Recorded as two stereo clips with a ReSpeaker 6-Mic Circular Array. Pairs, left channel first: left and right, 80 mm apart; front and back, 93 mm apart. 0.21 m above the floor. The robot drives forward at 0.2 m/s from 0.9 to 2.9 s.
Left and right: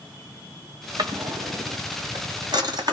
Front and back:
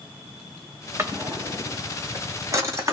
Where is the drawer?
115° right, 3.5 m; by 2.9 s 120° right, 4 m.